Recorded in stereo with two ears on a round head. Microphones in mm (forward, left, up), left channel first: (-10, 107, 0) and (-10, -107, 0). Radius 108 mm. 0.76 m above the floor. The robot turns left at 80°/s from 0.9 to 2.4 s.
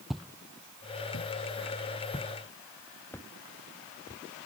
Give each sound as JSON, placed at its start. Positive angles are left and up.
{"t": 0.1, "sound": "footsteps", "side_deg": 0}